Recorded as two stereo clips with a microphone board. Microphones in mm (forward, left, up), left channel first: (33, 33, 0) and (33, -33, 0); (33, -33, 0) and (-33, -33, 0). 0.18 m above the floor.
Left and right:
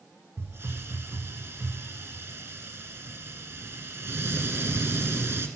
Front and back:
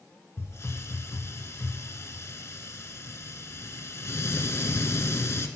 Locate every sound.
0.4 s a hiss: 40° right, 0.5 m